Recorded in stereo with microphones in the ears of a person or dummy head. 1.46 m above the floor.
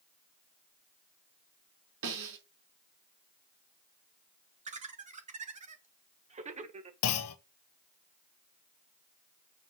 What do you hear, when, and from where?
2.0 s a snare drum: 70° right (ahead or behind), 4.5 m
4.7 s laughter: 35° right (ahead or behind), 1.4 m
7.0 s a clunk: 85° left, 1.1 m